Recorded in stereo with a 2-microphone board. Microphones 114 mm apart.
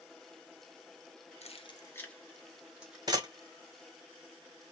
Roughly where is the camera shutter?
Right.